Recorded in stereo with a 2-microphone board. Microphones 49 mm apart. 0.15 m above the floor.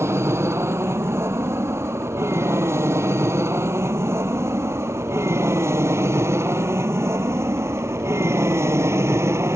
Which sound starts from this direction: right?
An aircraft, at 0.0 s.